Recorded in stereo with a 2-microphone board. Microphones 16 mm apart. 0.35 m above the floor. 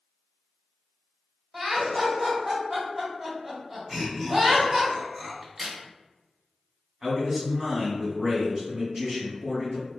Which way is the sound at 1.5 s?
10° right (ahead or behind).